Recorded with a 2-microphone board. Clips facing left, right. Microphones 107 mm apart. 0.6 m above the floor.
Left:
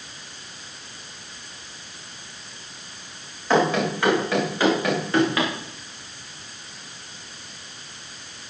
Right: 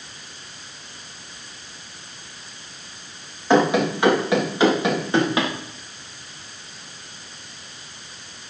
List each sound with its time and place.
3.5 s running footsteps: 15° right (ahead or behind), 8 m; by 5.5 s 20° right (ahead or behind), 7.5 m